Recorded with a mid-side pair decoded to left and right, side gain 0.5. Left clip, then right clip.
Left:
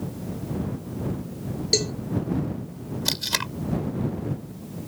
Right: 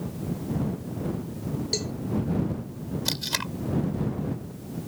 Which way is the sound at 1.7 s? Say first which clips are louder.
Left 8 dB; 40° left.